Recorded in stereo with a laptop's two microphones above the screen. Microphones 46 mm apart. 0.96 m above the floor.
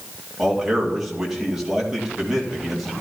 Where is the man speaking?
5° right (ahead or behind), 2 m.